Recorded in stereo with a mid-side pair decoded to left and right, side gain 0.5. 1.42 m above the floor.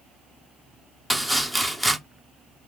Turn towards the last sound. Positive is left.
turn(degrees=0)